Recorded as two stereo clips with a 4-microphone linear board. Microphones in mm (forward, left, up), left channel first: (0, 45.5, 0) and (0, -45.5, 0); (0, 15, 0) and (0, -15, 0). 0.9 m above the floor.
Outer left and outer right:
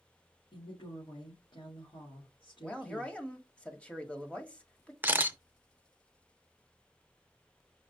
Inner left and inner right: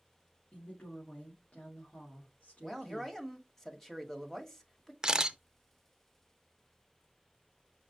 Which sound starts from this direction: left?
A woman speaking, at 0.5 s.